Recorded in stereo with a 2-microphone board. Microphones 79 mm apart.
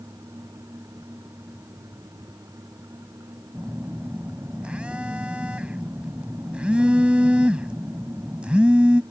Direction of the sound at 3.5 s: 15° right (ahead or behind).